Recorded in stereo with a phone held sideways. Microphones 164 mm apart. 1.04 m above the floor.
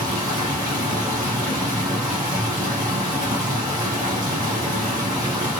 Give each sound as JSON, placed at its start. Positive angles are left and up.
{"t": 0.0, "sound": "running water", "side_deg": -20, "distance_m": 1.5}